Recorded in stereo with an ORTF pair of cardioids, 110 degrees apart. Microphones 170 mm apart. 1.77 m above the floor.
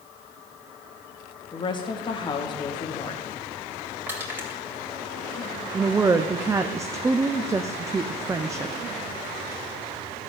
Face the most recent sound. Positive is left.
turn(degrees=-20)